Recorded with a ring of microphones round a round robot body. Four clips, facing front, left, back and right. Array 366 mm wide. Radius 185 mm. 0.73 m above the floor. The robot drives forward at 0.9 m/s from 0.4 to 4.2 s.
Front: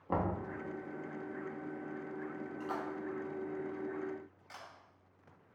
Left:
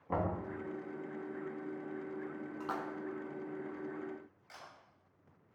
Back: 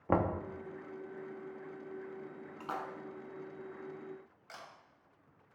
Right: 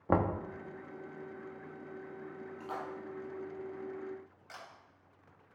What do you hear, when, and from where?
0.1 s knocking: 125° right, 1.0 m
2.6 s a splash: 125° left, 1.1 m; by 2.9 s 135° left, 1.3 m
4.5 s a camera shutter: 155° right, 4 m